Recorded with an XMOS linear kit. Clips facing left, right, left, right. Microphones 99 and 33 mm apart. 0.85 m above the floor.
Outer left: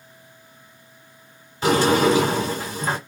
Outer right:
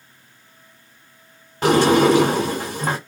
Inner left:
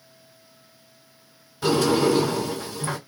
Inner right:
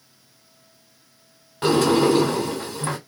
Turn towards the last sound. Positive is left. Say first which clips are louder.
# outer right 3 dB, inner right 2 dB
turn(degrees=-55)  # may be behind; listen again after turning